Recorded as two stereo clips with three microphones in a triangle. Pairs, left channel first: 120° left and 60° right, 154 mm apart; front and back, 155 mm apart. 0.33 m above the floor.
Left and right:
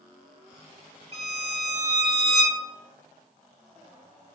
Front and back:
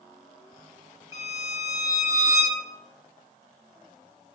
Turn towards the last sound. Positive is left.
turn(degrees=-110)